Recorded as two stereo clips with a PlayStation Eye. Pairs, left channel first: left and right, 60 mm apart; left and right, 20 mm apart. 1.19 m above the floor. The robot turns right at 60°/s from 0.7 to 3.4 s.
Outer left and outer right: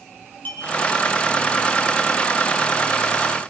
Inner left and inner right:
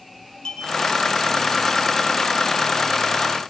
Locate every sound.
0.5 s a clink: 25° left (ahead or behind), 5 m